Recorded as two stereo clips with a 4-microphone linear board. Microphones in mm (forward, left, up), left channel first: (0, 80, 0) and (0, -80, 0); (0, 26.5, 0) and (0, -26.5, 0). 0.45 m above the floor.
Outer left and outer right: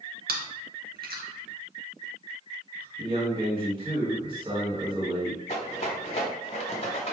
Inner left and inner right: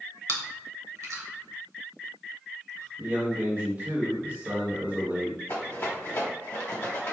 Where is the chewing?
75° right (ahead or behind), 0.7 m.